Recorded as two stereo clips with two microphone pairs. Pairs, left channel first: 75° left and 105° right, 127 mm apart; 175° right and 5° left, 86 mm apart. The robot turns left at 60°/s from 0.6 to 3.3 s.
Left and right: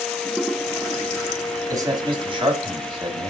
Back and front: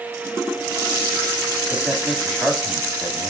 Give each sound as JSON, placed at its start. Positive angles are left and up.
{"t": 1.7, "sound": "a man speaking", "azimuth_deg": -55, "distance_m": 2.0}